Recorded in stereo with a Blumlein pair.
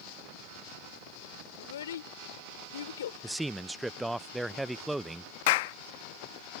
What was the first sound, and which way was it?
A child speaking, 60° left.